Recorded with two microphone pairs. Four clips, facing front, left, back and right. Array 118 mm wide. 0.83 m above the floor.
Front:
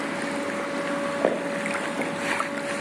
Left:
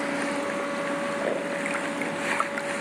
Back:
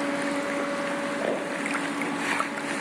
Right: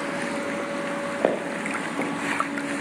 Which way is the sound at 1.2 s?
60° right.